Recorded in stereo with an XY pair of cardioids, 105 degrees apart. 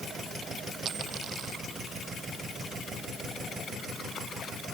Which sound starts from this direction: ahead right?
A dropped coin, at 0.8 s.